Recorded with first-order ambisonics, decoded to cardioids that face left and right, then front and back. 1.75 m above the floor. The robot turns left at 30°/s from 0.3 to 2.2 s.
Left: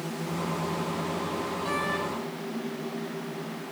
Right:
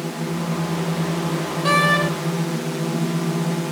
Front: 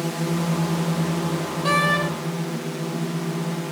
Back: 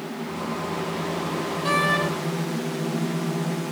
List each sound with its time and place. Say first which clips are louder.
0.0 s a drone: right 5 dB, front 4 dB; 30° right; by 3.7 s 85° right
1.6 s a door slam: right 14 dB, front 2 dB; 75° right; by 2.1 s 90° right